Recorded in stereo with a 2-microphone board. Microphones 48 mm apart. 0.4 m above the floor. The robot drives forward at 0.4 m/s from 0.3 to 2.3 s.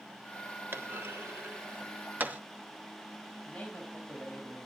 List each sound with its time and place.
0.7 s a clunk: 50° right (ahead or behind), 0.8 m; by 2.4 s 40° right (ahead or behind), 1.1 m
3.5 s a man speaking: 10° left (ahead or behind), 3.5 m